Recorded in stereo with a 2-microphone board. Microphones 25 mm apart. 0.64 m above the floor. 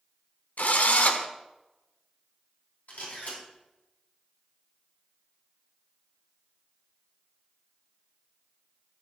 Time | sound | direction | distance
0.6 | a drill | 80° left | 0.9 m
2.9 | a camera shutter | 80° left | 4 m